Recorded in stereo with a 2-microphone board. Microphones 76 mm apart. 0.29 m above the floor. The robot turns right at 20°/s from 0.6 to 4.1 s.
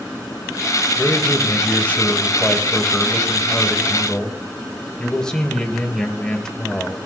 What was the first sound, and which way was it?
A man speaking, 20° left (ahead or behind).